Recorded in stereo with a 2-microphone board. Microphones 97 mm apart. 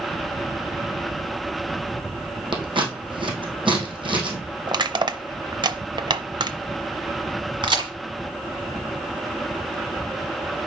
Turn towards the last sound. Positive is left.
turn(degrees=-55)  # may be behind; listen again after turning